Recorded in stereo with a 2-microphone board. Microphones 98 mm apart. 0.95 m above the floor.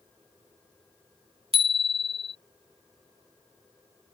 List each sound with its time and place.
1.5 s a bicycle bell: 80° right